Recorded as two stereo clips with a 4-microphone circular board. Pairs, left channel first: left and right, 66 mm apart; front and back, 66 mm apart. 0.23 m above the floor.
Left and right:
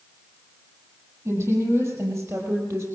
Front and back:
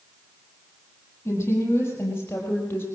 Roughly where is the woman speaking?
Ahead right.